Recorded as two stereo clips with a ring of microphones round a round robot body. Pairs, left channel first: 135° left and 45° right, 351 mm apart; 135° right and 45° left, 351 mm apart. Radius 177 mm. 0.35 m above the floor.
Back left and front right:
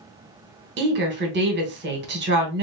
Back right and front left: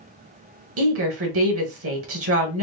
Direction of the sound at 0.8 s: 5° left.